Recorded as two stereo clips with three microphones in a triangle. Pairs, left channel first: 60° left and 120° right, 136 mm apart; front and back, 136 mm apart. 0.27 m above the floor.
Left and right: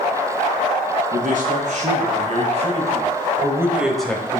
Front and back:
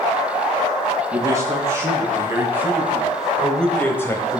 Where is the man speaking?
115° right, 3.5 m; by 4.4 s 15° left, 1.4 m.